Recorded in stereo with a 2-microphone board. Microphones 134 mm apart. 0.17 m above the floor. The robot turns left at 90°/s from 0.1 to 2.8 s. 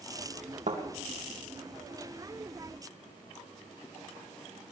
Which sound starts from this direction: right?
A thud, at 0.7 s.